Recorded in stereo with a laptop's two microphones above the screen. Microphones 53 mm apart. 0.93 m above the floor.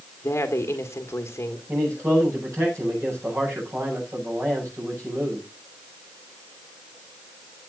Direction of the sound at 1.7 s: 65° right (ahead or behind).